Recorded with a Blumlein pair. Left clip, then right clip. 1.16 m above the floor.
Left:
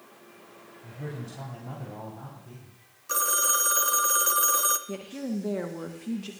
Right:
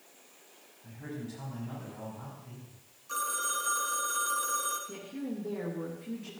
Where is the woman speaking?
60° left, 1.2 m.